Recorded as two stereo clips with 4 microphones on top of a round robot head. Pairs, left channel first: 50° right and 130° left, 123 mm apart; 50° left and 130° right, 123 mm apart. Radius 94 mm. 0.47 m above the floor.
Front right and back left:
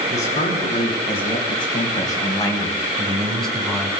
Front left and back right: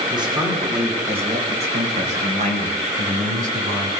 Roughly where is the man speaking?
Right.